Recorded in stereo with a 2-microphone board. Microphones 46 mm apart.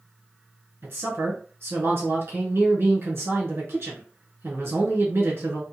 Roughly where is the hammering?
I don't hear hammering.